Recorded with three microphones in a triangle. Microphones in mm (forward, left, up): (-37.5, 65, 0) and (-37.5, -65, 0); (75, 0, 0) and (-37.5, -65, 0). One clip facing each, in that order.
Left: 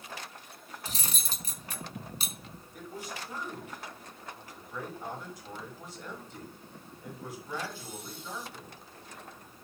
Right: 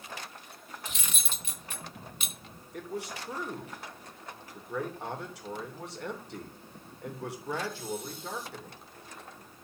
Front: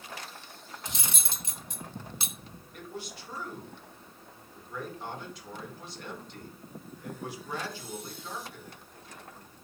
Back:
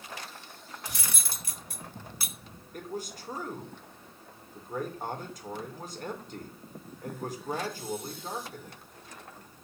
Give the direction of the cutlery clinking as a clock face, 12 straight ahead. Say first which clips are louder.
Left 2 dB, front 1 dB; 9 o'clock.